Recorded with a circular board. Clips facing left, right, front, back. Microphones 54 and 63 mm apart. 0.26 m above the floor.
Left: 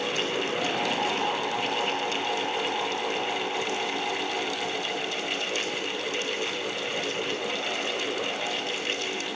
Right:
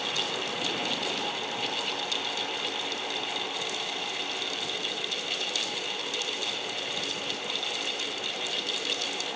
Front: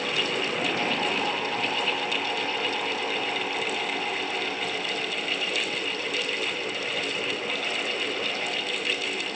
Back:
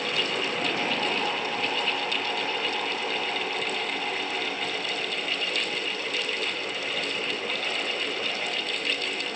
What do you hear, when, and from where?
Only background noise.